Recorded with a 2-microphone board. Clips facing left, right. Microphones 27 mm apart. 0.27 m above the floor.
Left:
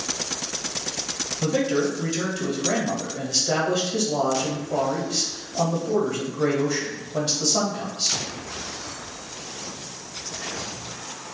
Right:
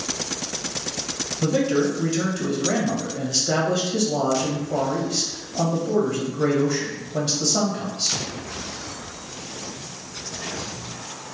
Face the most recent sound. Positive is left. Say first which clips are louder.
# right 2 dB
turn(degrees=0)  # may be behind; listen again after turning